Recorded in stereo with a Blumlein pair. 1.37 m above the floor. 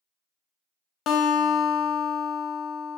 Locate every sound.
1.1 s a guitar: 30° left, 0.6 m